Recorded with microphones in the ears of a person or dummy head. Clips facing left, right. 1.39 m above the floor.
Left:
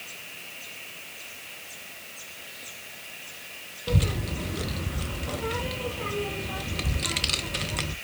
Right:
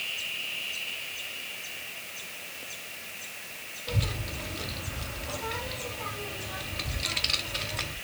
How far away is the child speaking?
About 0.5 m.